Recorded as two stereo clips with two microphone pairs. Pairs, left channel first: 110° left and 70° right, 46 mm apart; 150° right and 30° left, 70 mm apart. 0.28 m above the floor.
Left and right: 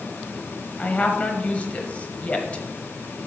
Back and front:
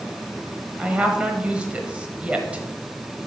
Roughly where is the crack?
I don't hear a crack.